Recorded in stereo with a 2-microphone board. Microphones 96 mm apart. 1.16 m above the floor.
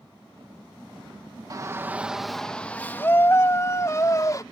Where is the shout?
35° right (ahead or behind); by 4.4 s 35° left (ahead or behind).